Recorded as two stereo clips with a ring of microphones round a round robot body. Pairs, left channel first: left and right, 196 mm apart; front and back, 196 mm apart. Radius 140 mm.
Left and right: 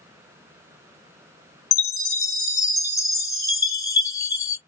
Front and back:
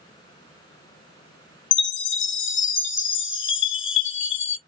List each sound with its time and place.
1.7 s a chime: 15° left, 1.1 m